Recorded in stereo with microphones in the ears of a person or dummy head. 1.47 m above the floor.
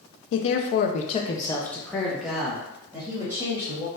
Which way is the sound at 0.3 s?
70° left (ahead or behind).